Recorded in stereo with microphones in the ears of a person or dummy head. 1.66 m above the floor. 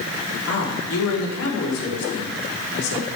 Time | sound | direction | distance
0.5 | a man speaking | 90° left | 5 m